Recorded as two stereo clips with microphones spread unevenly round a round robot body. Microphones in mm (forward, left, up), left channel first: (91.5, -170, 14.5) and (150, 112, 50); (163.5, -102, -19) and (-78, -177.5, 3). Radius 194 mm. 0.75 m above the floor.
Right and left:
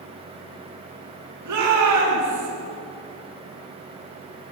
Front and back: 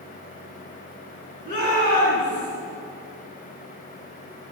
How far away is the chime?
No chime in this recording.